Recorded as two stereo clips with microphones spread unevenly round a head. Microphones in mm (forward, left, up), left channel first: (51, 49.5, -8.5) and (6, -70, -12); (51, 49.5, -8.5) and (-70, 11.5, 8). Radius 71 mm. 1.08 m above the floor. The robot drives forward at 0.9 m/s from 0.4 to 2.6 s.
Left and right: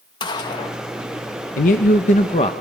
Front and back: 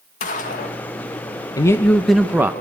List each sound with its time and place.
0.2 s a gunshot: 15° left, 1.5 m; by 0.8 s 20° left, 1.2 m
1.6 s a man speaking: 70° left, 1.1 m; by 2.5 s 125° left, 1.2 m